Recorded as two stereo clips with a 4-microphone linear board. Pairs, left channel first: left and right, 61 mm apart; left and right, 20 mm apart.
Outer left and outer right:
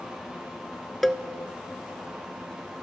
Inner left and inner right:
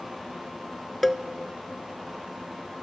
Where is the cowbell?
Centre (ahead or behind), 0.7 m.